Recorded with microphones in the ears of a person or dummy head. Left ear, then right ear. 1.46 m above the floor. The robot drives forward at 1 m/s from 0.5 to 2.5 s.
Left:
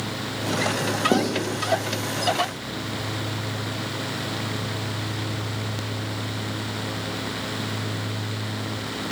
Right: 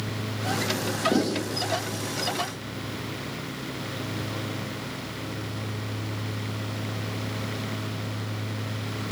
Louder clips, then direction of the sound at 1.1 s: Left 4 dB; 35° left (ahead or behind).